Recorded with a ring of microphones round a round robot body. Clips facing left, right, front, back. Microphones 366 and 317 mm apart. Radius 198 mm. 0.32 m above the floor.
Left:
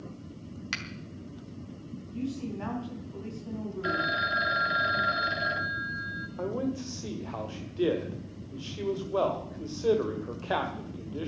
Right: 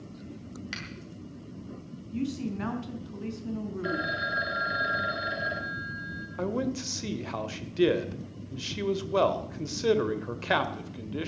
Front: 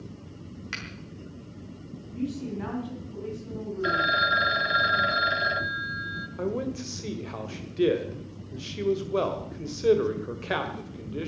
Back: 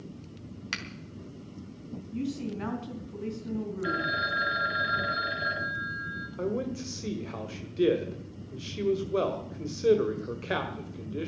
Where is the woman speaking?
135° right, 5 m.